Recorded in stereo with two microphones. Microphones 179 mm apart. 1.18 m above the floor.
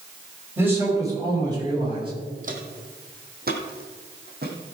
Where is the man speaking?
10° right (ahead or behind), 4.5 m; by 2.1 s 30° right (ahead or behind), 6 m.